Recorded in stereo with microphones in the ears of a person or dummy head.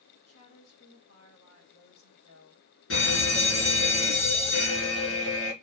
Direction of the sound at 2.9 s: 60° left (ahead or behind).